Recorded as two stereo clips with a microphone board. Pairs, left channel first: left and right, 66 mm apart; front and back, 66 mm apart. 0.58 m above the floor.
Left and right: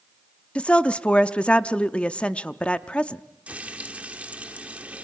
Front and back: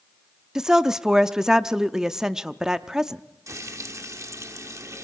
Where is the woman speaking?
115° left, 0.6 m.